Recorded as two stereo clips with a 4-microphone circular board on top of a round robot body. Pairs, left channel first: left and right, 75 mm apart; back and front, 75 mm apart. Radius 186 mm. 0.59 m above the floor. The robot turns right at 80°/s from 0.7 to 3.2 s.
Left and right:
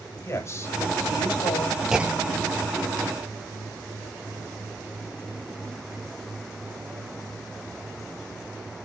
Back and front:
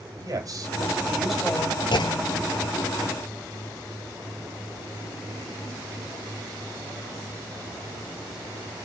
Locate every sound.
0.2 s a man speaking: 40° left, 4 m; by 1.8 s 130° left, 4 m
1.9 s a clunk: 175° right, 0.5 m; by 2.5 s 120° right, 0.5 m